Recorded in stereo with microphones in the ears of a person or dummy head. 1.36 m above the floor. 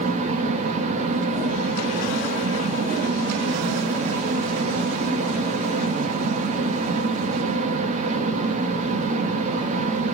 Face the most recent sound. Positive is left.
turn(degrees=-45)  # may be behind; listen again after turning